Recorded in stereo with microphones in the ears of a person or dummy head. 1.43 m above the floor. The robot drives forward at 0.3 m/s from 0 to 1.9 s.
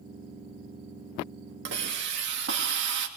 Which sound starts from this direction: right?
A hiss, at 1.6 s.